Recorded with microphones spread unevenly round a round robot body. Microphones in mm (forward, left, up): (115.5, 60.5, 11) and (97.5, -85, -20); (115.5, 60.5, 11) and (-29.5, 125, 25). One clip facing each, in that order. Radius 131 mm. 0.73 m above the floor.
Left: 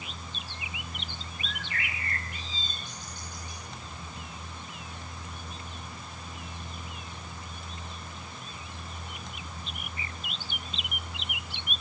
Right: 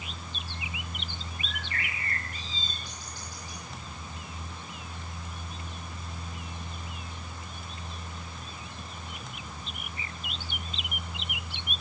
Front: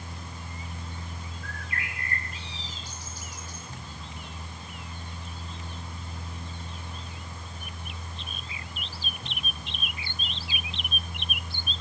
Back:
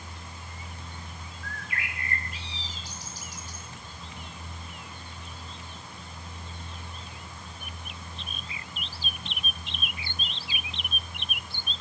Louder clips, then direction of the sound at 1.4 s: Left 1 dB, back 2 dB; 160° right.